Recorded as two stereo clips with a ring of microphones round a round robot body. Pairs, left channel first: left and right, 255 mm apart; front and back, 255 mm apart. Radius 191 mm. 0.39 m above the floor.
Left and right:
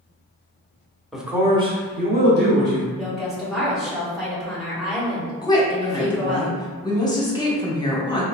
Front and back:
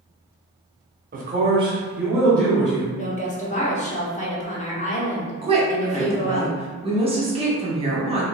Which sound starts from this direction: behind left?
A woman speaking, at 5.4 s.